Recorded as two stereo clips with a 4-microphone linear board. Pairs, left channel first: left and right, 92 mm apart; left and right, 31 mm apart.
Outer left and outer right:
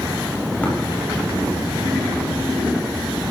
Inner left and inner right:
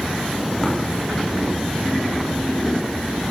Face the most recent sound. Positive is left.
turn(degrees=15)  # may be behind; listen again after turning